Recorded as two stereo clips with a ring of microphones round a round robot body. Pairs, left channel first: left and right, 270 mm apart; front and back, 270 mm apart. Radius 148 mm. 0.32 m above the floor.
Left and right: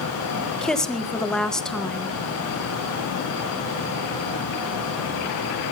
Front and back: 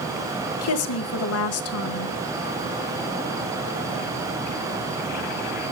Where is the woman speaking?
5° left, 1.5 m.